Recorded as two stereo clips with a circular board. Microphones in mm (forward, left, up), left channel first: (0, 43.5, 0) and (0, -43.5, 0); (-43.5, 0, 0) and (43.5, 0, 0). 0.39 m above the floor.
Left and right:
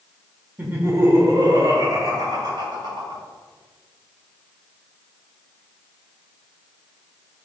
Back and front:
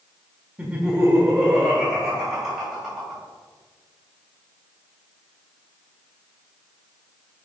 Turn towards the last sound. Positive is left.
turn(degrees=-85)